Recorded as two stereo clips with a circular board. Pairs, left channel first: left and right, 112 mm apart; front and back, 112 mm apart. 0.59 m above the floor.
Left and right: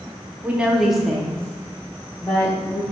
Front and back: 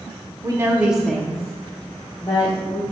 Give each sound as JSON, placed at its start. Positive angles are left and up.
{"t": 0.4, "sound": "a woman speaking", "azimuth_deg": -160, "distance_m": 0.7}